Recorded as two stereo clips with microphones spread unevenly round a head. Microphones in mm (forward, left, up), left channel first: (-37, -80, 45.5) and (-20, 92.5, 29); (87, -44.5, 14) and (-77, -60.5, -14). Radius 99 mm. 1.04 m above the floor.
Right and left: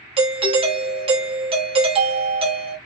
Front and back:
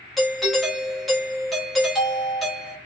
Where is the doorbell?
105° left, 0.7 m.